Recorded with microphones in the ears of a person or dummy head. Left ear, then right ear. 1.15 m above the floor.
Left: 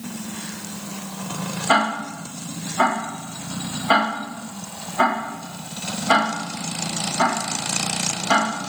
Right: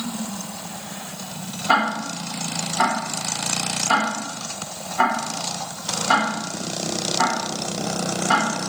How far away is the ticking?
About 0.9 m.